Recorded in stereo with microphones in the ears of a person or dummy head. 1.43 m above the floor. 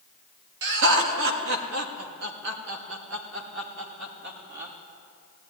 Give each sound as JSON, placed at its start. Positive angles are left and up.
{"t": 0.6, "sound": "laughter", "side_deg": -65, "distance_m": 3.0}